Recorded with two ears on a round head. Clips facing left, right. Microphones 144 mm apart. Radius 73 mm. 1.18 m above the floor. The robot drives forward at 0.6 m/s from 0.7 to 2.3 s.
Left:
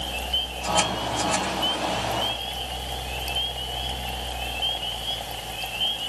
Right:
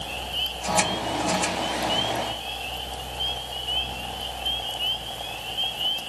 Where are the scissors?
I don't hear scissors.